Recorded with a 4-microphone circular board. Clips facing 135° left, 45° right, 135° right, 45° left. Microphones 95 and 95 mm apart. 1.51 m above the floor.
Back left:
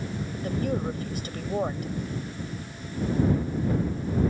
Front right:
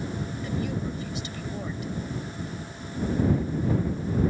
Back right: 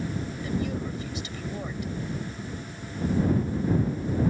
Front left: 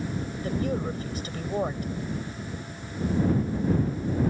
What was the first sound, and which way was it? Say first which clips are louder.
A woman speaking: back left 5 dB, front left 3 dB; 90° left.